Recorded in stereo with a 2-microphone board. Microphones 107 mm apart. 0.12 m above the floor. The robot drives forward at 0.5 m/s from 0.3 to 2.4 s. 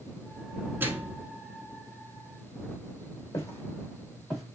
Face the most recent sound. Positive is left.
turn(degrees=0)  # may be behind; listen again after turning